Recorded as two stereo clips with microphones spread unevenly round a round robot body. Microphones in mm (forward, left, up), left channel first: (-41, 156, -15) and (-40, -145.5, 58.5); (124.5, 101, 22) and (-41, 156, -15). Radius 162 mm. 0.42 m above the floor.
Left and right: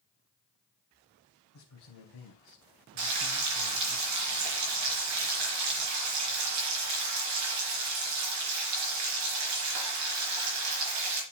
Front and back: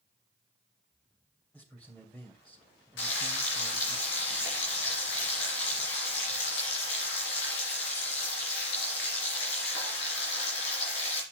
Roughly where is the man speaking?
Left.